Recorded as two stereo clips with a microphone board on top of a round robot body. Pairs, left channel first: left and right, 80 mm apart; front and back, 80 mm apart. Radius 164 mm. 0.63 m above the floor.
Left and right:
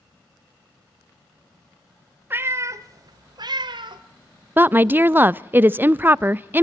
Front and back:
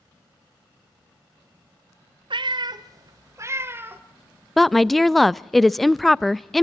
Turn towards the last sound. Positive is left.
turn(degrees=-85)